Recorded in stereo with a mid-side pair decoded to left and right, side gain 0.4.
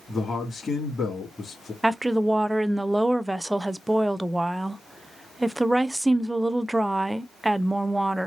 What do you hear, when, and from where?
0.1 s a man speaking: 30° left, 2.5 m
1.8 s a woman speaking: 10° right, 0.5 m